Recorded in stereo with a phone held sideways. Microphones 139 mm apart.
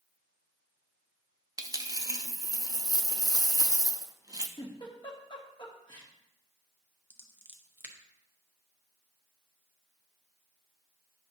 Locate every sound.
1.6 s a dropped coin: 25° right (ahead or behind), 0.5 m
4.6 s a giggle: 35° left (ahead or behind), 1.2 m
7.1 s scissors: 15° right (ahead or behind), 0.9 m